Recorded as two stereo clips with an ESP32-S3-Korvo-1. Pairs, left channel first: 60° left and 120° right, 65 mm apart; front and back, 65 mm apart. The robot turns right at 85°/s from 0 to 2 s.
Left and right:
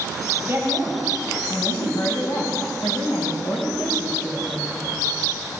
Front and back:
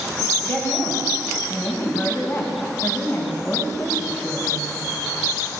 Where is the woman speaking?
65° right, 4 m; by 5.0 s 65° left, 4 m.